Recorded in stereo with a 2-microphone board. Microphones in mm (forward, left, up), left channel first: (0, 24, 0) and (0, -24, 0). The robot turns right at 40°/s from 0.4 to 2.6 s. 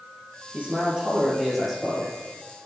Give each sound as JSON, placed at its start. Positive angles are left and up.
{"t": 0.5, "sound": "a man speaking", "azimuth_deg": -40, "distance_m": 3.0}